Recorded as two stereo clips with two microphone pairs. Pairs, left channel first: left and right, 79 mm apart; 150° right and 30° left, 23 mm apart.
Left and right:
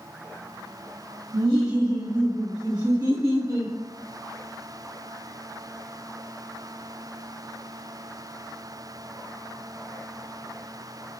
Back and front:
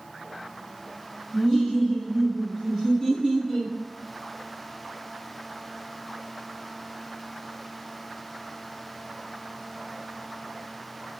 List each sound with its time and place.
1.3 s laughter: 75° right, 1.1 m